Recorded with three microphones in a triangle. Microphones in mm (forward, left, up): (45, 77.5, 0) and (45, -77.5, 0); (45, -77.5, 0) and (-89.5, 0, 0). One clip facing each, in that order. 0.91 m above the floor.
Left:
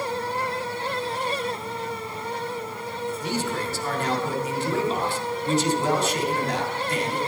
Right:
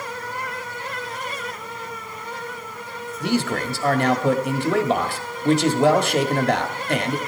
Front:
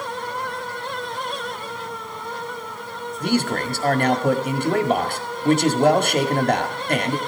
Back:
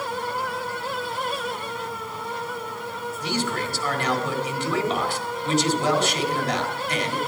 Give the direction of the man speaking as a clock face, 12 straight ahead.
2 o'clock.